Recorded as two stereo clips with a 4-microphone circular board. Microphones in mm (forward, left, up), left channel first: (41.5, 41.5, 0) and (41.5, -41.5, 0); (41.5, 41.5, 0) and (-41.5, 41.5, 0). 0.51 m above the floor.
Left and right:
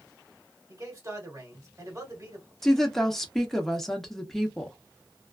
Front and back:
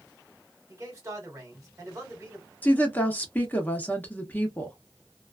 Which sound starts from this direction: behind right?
A man speaking, at 0.7 s.